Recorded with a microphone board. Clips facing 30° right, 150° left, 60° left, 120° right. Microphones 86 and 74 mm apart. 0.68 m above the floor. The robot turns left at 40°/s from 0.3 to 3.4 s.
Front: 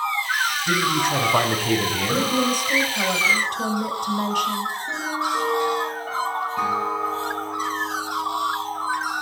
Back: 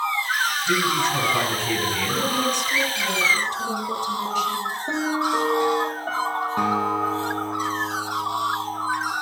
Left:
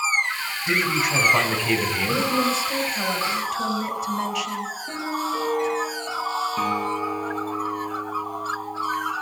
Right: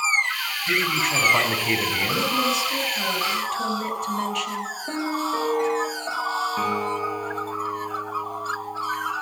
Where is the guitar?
165° left, 8 m.